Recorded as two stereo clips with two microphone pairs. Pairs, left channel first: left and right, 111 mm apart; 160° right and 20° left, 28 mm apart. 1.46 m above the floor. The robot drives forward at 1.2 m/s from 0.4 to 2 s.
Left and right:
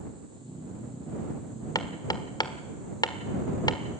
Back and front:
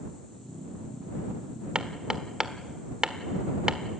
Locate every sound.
1.8 s hammering: 55° left, 1.5 m; by 3.8 s 70° left, 1.4 m